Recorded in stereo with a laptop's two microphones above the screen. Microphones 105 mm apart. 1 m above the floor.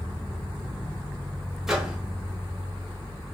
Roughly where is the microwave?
Centre.